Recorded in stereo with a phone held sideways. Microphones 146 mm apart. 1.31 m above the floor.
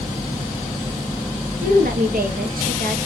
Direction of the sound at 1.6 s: 80° right.